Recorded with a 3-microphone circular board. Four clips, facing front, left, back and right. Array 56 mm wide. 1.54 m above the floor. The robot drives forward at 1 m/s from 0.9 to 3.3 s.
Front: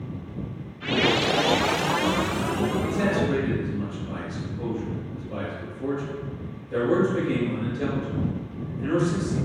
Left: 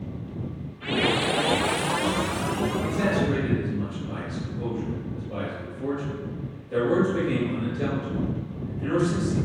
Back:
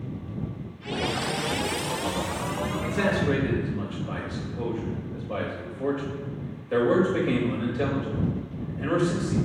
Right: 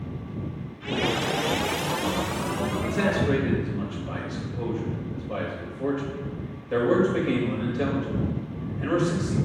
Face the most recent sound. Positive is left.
turn(degrees=-145)